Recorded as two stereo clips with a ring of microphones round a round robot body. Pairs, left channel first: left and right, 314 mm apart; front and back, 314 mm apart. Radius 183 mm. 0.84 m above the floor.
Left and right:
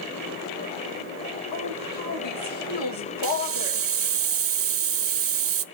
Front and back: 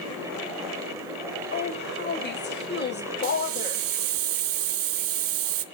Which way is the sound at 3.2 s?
135° right.